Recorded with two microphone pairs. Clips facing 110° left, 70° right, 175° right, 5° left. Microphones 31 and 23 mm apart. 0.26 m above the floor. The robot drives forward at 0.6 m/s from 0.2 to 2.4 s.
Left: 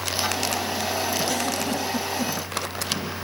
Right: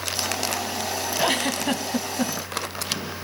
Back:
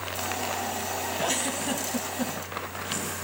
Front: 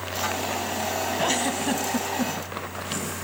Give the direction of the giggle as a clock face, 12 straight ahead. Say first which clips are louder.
Right 2 dB, front 3 dB; 2 o'clock.